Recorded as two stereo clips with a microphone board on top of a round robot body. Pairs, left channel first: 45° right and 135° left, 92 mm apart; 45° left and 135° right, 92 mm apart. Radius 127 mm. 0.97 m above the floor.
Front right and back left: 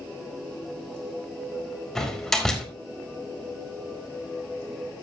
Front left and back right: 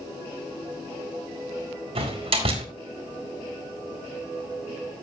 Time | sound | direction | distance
1.9 | a door slam | 130° right | 2.5 m